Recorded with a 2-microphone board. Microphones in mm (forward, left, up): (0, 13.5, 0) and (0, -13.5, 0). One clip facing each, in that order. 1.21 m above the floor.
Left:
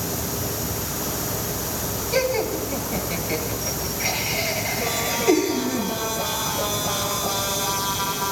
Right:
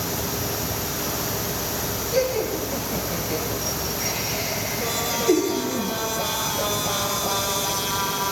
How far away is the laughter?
About 1.8 m.